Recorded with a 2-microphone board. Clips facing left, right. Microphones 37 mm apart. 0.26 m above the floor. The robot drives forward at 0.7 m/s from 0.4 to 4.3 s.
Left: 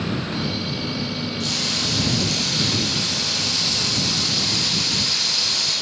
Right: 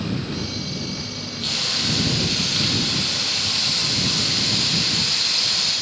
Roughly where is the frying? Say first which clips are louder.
Right 2 dB; right.